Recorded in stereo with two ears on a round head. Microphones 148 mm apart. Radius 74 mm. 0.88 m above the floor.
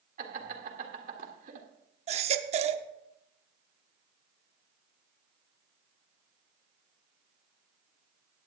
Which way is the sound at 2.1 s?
40° right (ahead or behind).